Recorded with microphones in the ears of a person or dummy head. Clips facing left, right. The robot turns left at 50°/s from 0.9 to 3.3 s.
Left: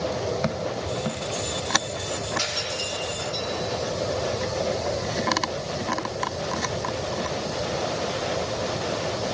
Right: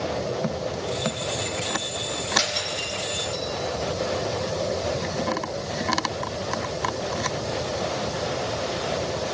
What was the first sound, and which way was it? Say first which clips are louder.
Breaking glass: right 1 dB; 75° right (ahead or behind).